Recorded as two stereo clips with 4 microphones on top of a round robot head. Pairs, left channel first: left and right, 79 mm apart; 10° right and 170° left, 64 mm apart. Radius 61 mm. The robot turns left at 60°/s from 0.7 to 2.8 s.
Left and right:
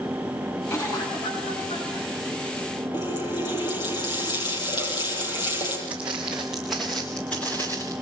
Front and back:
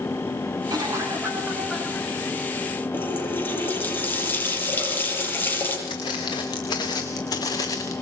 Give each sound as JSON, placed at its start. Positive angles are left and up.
{"t": 0.7, "sound": "a cough", "azimuth_deg": 145, "distance_m": 7.0}
{"t": 2.9, "sound": "a running tap", "azimuth_deg": 50, "distance_m": 9.5}
{"t": 5.9, "sound": "footsteps", "azimuth_deg": -15, "distance_m": 4.0}